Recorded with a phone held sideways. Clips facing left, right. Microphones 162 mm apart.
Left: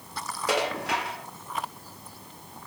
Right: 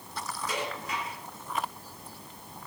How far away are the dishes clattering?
About 1.4 m.